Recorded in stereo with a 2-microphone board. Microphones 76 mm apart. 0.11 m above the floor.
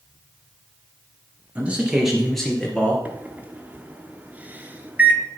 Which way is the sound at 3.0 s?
20° right (ahead or behind).